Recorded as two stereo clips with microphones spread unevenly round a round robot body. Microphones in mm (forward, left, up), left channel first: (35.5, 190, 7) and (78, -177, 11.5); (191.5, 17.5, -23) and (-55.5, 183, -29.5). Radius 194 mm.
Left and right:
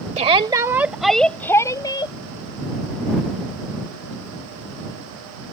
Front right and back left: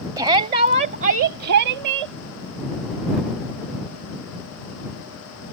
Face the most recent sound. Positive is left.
turn(degrees=175)